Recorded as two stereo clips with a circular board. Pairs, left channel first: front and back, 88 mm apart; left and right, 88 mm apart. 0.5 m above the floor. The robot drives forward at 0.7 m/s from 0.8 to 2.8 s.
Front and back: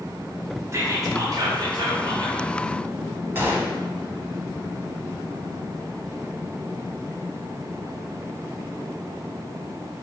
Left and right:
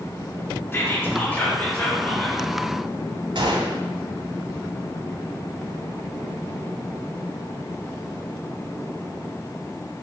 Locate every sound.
0.7 s whispering: 140° left, 0.9 m; by 2.4 s 165° left, 1.8 m
3.4 s a gunshot: 115° right, 0.7 m